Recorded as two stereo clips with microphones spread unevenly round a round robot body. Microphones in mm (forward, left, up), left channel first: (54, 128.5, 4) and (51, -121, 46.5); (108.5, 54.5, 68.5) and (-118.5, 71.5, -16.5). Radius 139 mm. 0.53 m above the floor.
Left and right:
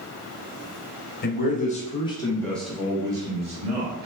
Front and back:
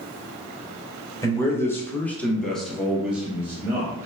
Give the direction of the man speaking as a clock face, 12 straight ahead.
9 o'clock.